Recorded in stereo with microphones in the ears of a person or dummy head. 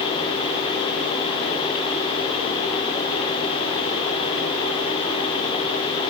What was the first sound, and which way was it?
Only background noise.